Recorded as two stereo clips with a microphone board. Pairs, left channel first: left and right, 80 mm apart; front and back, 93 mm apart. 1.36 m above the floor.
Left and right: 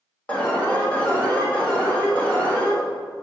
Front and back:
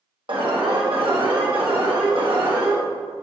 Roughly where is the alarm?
Behind.